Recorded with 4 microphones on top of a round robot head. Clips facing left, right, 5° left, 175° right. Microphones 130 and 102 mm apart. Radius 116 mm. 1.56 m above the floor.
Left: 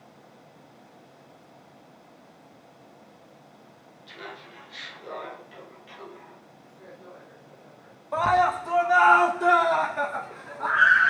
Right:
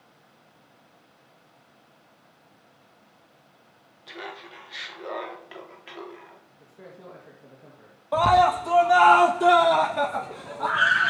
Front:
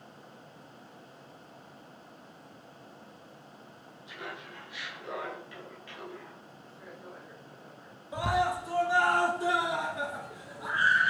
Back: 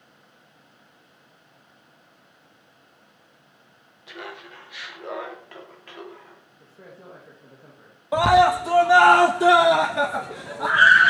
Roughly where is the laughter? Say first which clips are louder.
Right 3 dB, back 5 dB; behind right.